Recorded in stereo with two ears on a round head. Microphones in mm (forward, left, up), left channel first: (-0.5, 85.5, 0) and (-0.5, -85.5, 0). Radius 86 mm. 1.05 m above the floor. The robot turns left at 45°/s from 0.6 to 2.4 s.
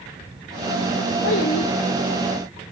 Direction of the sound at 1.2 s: 65° left (ahead or behind).